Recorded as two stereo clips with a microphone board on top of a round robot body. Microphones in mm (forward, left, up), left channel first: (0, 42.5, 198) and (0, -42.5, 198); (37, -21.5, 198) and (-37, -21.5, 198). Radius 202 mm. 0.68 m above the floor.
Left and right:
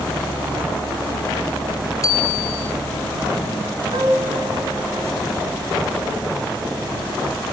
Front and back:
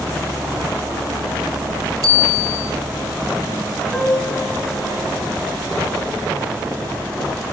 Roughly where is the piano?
Right.